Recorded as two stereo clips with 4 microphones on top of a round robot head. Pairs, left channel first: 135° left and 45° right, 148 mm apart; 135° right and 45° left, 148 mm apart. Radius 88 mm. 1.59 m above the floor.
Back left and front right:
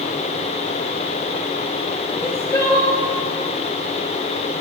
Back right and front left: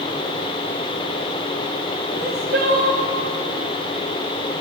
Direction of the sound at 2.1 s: 60° left.